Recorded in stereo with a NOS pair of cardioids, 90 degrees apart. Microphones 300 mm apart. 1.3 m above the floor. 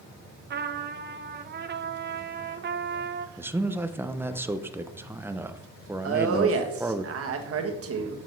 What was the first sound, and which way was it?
A trumpet, 35° right.